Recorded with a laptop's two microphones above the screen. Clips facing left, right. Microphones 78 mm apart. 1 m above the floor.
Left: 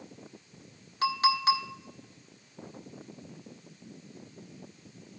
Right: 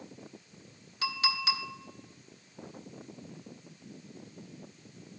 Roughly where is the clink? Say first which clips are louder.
Left 7 dB; left.